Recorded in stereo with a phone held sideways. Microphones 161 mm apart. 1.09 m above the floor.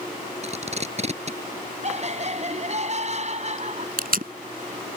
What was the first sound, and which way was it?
Tape being pulled, 45° right (ahead or behind).